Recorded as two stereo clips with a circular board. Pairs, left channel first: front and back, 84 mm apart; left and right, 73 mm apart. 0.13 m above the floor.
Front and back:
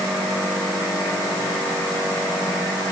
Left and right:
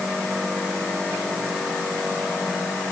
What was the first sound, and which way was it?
Only background noise.